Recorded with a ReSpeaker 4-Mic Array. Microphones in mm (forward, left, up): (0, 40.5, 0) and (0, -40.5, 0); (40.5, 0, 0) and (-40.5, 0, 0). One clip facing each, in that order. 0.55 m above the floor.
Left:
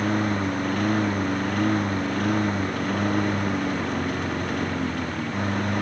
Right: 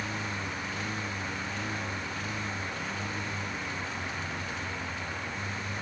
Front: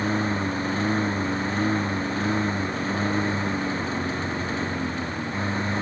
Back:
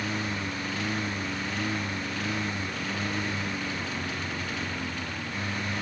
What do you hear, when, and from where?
0.0 s a lawn mower: 55° left; by 5.8 s 60° left